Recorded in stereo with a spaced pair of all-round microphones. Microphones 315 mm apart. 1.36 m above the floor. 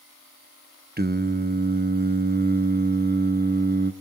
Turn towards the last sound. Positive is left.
turn(degrees=-30)  # may be behind; listen again after turning